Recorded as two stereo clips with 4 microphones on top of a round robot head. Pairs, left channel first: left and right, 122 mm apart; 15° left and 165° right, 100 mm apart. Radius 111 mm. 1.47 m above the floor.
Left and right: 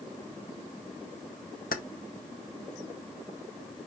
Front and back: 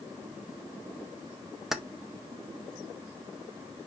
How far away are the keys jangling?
About 0.5 m.